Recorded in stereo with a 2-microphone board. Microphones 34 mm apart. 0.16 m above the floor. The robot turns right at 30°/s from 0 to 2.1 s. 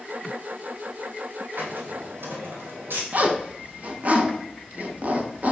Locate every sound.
1.6 s a hiss: 65° right (ahead or behind), 1.3 m; by 3.0 s 80° right, 1.3 m
3.1 s a zipper: 45° right (ahead or behind), 0.7 m